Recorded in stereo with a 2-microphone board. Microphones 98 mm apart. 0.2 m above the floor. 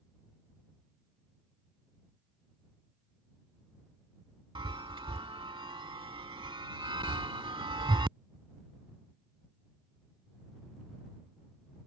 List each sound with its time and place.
4.5 s a chime: 55° right (ahead or behind)